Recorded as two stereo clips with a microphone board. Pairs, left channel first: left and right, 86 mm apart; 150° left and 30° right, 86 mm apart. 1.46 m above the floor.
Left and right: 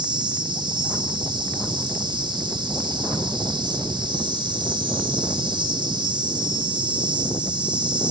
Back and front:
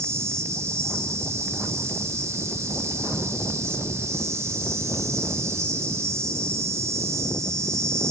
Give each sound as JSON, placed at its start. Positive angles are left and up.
{"t": 0.0, "sound": "an insect", "azimuth_deg": -80, "distance_m": 1.4}